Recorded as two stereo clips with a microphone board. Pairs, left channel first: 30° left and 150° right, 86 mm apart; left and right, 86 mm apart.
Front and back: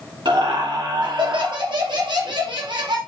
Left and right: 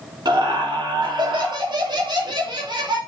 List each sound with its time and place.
0.2 s laughter: 125° right, 3 m